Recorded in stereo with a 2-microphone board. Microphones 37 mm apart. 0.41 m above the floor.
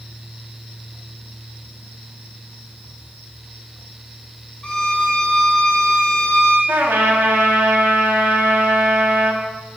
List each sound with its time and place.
4.6 s a violin: 25° left (ahead or behind), 0.7 m
6.7 s a trumpet: 60° right (ahead or behind), 0.5 m